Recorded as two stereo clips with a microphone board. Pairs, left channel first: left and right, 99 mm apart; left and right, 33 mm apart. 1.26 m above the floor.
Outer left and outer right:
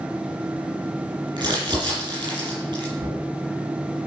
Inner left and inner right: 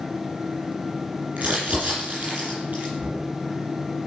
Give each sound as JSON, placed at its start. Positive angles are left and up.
{"t": 1.4, "sound": "crumpling", "side_deg": -45, "distance_m": 8.0}
{"t": 3.0, "sound": "knocking", "side_deg": -30, "distance_m": 8.5}